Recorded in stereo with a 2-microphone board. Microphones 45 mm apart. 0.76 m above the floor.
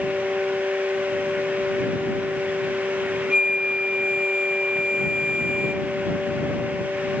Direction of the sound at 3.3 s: 20° right (ahead or behind).